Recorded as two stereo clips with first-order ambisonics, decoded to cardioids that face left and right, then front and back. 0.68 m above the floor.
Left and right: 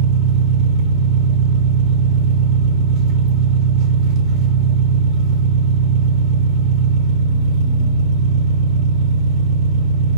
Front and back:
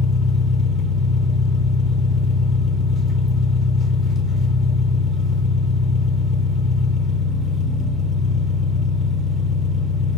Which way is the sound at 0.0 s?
65° right.